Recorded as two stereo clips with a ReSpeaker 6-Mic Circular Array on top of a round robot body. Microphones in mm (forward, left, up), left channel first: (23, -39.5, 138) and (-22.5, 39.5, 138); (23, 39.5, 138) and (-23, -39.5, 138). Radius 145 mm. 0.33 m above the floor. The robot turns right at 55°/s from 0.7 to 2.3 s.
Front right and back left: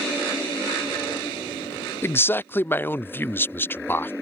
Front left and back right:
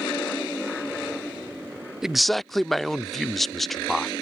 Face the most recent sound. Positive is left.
turn(degrees=-25)